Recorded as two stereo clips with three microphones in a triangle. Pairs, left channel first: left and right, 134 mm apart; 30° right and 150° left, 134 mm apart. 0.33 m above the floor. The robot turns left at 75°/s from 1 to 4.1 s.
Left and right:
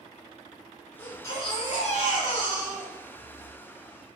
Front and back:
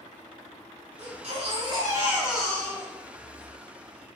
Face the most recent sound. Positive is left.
turn(degrees=-70)